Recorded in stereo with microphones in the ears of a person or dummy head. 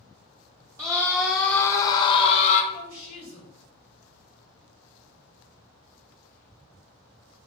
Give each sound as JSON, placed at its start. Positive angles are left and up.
{"t": 0.8, "sound": "a scream", "side_deg": -15, "distance_m": 1.0}
{"t": 2.7, "sound": "a woman speaking", "side_deg": -65, "distance_m": 3.5}